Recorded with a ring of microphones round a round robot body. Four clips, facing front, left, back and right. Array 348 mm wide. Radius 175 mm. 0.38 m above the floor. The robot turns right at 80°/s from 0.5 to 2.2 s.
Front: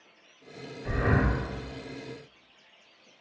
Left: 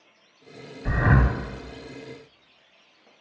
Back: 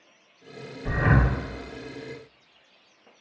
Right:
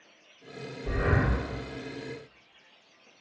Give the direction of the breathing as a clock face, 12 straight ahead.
8 o'clock.